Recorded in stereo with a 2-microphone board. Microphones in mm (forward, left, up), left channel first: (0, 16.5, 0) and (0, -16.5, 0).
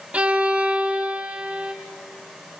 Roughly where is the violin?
Right.